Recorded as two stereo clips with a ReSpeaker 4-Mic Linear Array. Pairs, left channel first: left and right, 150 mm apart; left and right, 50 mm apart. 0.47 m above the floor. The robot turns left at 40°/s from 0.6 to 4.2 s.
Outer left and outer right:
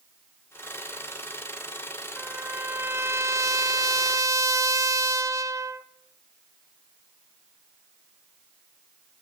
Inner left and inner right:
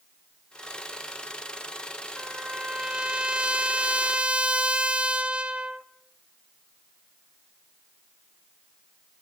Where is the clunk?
No clunk in this recording.